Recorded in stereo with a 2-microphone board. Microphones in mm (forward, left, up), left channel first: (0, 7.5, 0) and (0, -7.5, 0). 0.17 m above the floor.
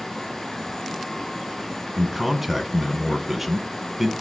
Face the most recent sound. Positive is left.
turn(degrees=-15)  # may be behind; listen again after turning